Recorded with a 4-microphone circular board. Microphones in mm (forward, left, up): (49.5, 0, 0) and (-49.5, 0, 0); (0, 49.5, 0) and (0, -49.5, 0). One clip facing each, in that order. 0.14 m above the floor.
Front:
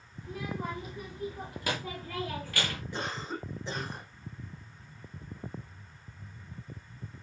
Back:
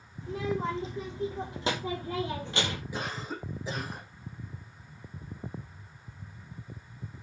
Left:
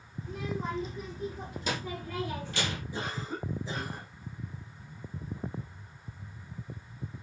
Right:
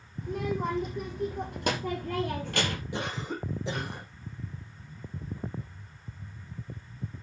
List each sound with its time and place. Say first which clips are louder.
0.2 s a child speaking: back 6 dB, right 5 dB; 115° right, 5 m
2.9 s a cough: even, right 2 dB; 95° right, 6 m